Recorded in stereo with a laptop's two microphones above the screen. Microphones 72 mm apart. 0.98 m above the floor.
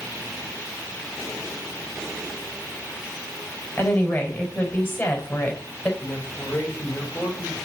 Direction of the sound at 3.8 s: 30° left (ahead or behind).